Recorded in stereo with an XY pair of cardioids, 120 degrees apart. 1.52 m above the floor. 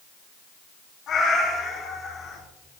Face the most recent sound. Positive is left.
turn(degrees=50)